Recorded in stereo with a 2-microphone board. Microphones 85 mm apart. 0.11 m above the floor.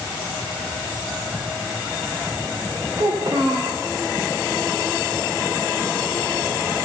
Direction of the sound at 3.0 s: 55° right (ahead or behind).